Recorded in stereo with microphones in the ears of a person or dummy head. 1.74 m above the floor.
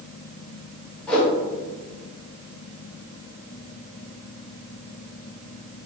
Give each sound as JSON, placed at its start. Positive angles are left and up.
{"t": 1.1, "sound": "a whoosh", "side_deg": 15, "distance_m": 0.8}